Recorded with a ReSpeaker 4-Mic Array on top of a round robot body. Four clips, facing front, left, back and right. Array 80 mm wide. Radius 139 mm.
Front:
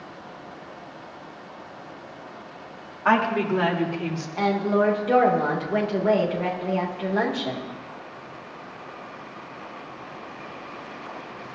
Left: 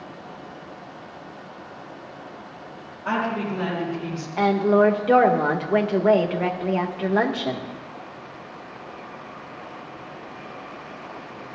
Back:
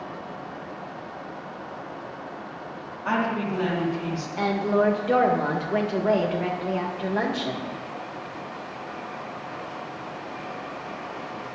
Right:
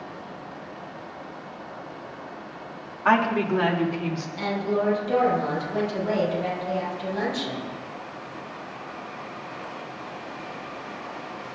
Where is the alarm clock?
No alarm clock in this recording.